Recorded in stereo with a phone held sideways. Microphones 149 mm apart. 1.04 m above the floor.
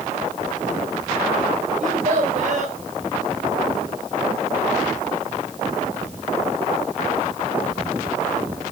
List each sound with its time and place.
1.8 s a child speaking: 55° right (ahead or behind), 4 m